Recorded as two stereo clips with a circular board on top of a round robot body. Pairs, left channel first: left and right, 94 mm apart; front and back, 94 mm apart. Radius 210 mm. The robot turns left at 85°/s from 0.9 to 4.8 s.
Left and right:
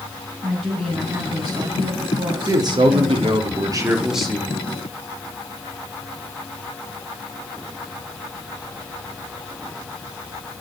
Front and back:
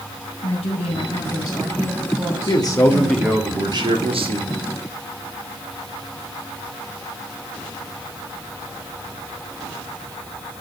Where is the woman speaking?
5° right, 8.5 m; by 3.5 s 135° left, 8.5 m.